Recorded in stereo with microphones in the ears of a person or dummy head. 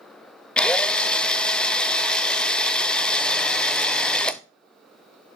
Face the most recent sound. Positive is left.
turn(degrees=5)  # may be behind; listen again after turning